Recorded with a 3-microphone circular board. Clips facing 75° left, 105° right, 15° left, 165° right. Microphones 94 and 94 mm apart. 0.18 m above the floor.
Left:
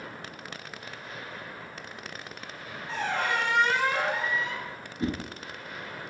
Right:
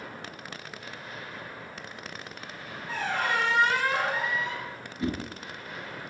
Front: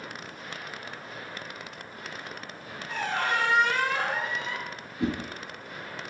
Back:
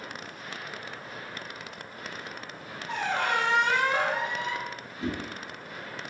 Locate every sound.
2.9 s a squeak: 175° left, 1.7 m
5.0 s a whoosh: 25° left, 1.0 m